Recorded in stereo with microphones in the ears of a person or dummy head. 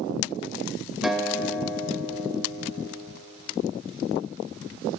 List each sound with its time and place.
1.0 s a guitar: centre (ahead or behind), 1.6 m